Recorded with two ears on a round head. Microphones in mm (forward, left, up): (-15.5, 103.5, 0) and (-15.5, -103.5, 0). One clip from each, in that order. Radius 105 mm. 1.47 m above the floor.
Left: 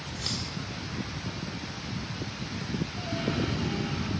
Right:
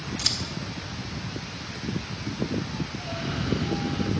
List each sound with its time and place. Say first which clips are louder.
0.2 s scissors: right 7 dB; 30° right (ahead or behind), 1.6 m
3.0 s a cough: left 2 dB; 50° left (ahead or behind), 3.5 m